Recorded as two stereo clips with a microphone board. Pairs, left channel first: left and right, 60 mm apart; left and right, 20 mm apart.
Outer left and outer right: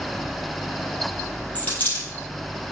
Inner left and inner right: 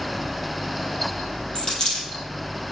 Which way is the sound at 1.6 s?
30° left (ahead or behind).